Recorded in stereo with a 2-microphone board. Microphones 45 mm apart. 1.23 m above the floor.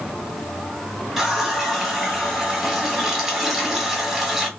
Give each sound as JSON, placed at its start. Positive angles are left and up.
{"t": 1.2, "sound": "a running tap", "side_deg": -5, "distance_m": 1.1}